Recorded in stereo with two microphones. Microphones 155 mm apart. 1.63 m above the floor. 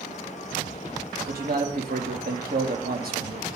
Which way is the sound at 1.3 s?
75° right (ahead or behind).